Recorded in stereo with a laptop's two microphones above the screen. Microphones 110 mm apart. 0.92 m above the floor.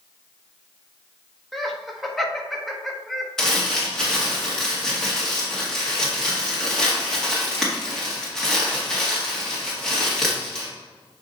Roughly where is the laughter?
Centre.